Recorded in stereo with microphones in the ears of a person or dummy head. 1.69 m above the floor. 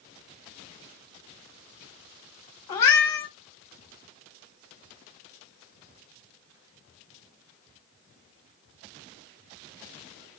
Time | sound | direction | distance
2.7 | a cat meowing | 20° left (ahead or behind) | 1.2 m